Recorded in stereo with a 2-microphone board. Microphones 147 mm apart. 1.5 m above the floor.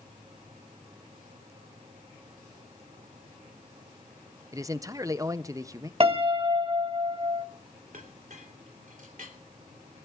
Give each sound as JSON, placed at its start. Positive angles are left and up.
{"t": 4.5, "sound": "a man speaking", "side_deg": -20, "distance_m": 0.5}
{"t": 6.0, "sound": "a piano", "side_deg": -40, "distance_m": 1.0}
{"t": 7.9, "sound": "a clink", "side_deg": -65, "distance_m": 3.0}